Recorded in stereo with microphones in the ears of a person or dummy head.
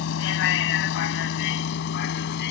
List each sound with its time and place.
0.0 s a vehicle: 75° left (ahead or behind); by 2.5 s 65° left (ahead or behind)